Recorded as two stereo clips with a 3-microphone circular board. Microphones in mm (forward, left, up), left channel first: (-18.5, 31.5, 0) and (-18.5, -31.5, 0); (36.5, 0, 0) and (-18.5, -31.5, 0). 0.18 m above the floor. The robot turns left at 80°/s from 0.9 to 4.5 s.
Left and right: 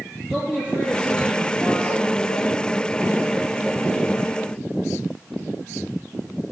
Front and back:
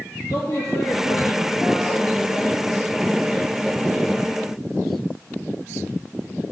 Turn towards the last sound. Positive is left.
turn(degrees=95)